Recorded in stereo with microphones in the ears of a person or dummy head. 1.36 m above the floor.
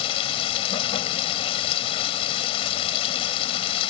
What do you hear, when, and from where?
0.0 s running water: 35° left (ahead or behind)